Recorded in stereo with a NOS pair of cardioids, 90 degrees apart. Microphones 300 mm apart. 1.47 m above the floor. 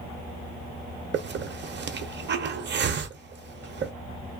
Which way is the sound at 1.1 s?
35° right.